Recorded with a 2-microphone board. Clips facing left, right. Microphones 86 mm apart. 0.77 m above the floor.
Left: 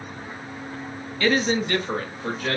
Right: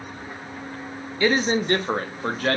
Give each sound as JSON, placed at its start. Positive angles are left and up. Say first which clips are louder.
{"t": 1.2, "sound": "a man speaking", "louder": "right 1 dB", "side_deg": -15, "distance_m": 0.5}